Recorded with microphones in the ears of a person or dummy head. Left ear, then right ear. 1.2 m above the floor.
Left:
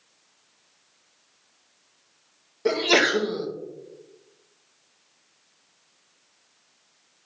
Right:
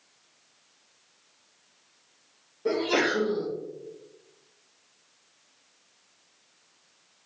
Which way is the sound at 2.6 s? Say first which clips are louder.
Left 5 dB; 50° left (ahead or behind).